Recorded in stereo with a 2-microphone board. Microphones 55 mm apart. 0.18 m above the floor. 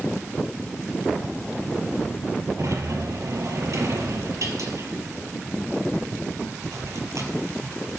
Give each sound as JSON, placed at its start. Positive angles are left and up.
{"t": 2.6, "sound": "a sliding door", "side_deg": -75, "distance_m": 1.9}